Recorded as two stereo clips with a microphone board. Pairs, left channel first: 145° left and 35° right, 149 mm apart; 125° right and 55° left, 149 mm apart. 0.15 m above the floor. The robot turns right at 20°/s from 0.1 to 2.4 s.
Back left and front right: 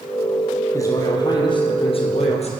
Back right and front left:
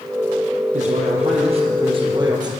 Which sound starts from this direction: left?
A man speaking, at 0.7 s.